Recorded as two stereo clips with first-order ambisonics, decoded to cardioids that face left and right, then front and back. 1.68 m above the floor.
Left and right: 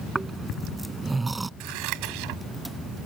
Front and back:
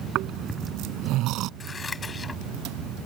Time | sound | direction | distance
0.1 | snoring | 170° right | ?
1.6 | scissors | 75° right | ?